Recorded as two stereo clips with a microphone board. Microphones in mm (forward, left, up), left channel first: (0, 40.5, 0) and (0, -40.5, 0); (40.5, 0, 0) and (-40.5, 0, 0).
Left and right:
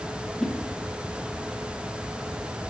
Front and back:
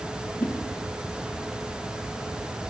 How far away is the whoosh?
About 1.4 m.